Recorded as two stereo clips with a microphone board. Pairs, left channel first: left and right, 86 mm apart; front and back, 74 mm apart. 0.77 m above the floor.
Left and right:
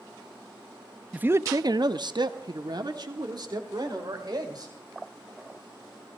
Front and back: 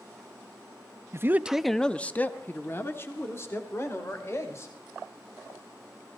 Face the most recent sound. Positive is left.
turn(degrees=-50)